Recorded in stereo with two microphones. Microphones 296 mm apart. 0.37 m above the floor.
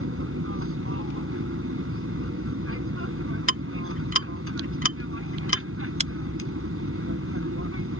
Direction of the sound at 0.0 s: 45° right (ahead or behind).